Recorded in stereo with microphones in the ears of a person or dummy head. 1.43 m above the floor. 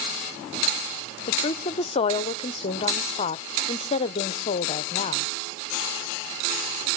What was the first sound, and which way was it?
A woman speaking, 30° left (ahead or behind).